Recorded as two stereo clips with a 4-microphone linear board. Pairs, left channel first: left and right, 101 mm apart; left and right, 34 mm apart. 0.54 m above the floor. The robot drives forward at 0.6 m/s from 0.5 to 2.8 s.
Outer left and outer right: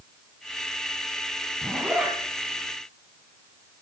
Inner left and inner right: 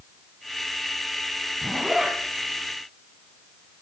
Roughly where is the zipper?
Centre.